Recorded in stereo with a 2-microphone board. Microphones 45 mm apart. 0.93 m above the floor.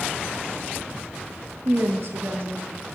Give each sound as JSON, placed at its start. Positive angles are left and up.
{"t": 1.6, "sound": "a woman speaking", "side_deg": -50, "distance_m": 0.9}